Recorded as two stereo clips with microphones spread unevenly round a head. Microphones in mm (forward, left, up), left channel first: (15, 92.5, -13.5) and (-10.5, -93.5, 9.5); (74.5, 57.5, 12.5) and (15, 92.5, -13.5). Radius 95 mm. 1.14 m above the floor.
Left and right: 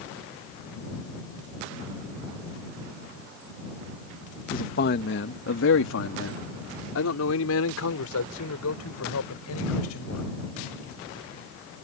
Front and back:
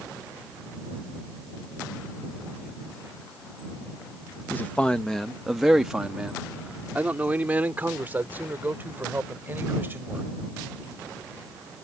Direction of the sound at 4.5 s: 40° left.